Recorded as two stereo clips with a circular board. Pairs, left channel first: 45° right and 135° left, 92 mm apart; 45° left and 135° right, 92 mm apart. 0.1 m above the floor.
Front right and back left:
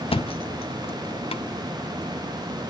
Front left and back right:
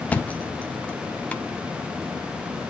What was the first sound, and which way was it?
A thud, 30° right.